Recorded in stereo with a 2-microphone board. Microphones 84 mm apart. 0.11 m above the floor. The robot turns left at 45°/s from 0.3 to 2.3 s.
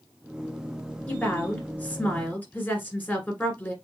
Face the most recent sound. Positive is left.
turn(degrees=20)  # may be behind; listen again after turning